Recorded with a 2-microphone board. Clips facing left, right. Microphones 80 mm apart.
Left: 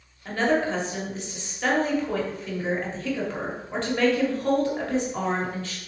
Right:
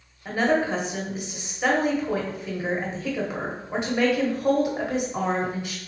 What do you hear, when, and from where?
0.2 s a woman speaking: 10° right (ahead or behind), 1.1 m